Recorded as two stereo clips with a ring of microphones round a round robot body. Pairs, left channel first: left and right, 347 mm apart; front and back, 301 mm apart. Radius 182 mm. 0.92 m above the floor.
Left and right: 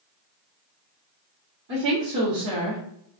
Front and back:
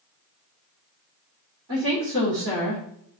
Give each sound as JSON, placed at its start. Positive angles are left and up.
{"t": 1.7, "sound": "a woman speaking", "azimuth_deg": -135, "distance_m": 1.9}